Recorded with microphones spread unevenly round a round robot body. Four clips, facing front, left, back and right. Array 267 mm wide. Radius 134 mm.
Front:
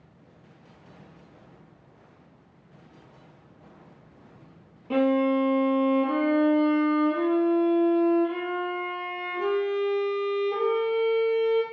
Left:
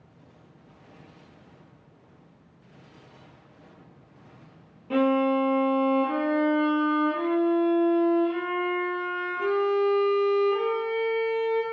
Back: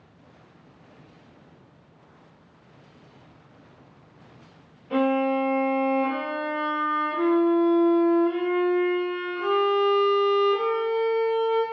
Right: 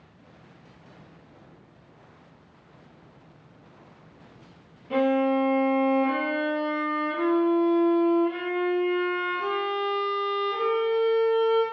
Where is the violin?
20° left, 1.6 m.